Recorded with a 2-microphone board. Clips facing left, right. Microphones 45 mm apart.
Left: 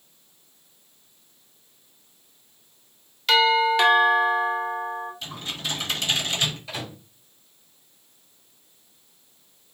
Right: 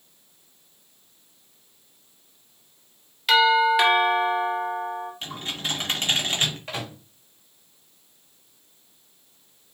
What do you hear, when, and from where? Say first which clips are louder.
3.3 s a doorbell: right 1 dB; 5° right (ahead or behind), 1.7 m
5.2 s typing on a keyboard: right 1 dB; 40° right (ahead or behind), 1.6 m
6.7 s a microwave: right 1 dB; 50° right (ahead or behind), 2 m